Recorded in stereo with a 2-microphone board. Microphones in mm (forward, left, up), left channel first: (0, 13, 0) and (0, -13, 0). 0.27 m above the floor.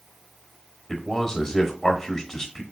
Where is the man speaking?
15° left (ahead or behind), 0.9 m.